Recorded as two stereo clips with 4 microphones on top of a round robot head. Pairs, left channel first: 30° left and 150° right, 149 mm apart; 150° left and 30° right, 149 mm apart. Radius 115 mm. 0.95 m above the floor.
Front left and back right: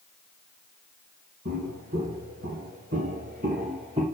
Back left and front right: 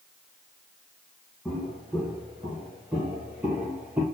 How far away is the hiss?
I don't hear a hiss.